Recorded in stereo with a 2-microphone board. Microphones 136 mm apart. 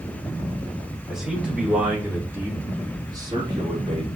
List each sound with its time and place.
1.1 s a man speaking: 5° right (ahead or behind), 5.5 m; by 4.1 s 50° right (ahead or behind), 3 m